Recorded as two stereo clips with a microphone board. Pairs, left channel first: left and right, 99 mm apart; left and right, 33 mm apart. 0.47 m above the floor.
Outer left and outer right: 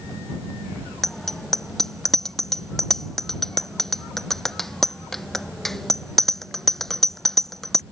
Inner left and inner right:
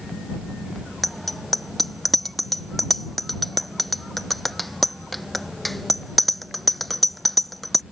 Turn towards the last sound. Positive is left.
turn(degrees=5)  # may be behind; listen again after turning